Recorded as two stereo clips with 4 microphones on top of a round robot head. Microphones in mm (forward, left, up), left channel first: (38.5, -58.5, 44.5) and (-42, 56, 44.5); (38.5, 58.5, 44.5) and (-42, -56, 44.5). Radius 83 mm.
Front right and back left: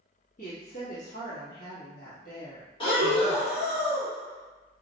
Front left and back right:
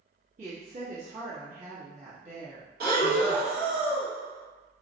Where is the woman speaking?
85° right, 1.1 m.